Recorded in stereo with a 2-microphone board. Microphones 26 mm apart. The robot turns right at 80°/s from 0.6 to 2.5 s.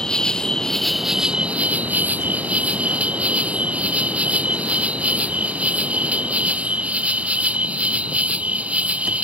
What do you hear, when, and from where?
0.0 s an insect: 155° left; by 9.2 s 55° right